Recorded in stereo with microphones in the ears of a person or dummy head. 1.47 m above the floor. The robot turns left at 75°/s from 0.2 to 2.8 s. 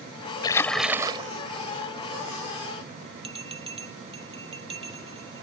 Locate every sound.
0.4 s a splash: 30° left; by 1.3 s 35° right
3.2 s a bell: 30° right (ahead or behind)